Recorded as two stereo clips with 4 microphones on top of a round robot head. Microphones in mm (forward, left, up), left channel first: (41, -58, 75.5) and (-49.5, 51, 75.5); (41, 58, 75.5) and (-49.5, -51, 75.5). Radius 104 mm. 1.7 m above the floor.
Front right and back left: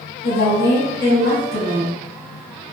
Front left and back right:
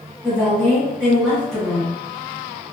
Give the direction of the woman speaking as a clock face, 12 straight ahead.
2 o'clock.